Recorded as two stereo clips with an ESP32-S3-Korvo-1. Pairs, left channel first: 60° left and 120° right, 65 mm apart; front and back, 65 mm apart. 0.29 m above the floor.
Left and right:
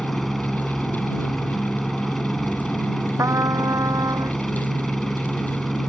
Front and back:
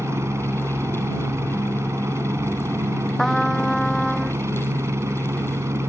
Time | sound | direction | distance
0.0 | a helicopter | 145° left | ?
3.2 | a trumpet | 85° right | ?